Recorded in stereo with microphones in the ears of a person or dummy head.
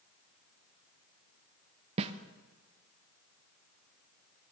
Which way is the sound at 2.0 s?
35° right (ahead or behind).